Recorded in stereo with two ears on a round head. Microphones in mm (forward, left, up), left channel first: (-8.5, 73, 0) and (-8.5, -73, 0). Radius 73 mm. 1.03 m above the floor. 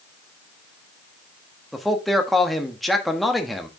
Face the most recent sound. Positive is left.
turn(degrees=0)  # may be behind; listen again after turning